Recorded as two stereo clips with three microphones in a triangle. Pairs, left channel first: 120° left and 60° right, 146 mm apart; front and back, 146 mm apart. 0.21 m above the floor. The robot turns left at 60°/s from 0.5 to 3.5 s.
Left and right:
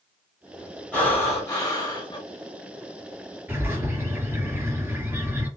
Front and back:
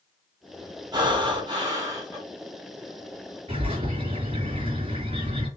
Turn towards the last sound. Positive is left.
turn(degrees=-135)